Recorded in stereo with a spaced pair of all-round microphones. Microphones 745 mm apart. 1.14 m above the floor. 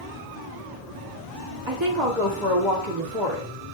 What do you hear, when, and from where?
1.7 s a woman speaking: 40° right (ahead or behind), 2 m